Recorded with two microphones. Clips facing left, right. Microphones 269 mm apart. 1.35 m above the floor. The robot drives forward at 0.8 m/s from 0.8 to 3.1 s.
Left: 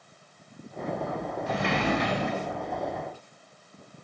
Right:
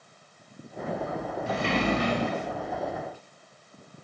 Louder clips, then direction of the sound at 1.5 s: Right 1 dB; 30° right (ahead or behind).